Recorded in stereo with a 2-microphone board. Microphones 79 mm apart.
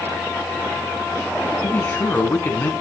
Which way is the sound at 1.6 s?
25° left (ahead or behind).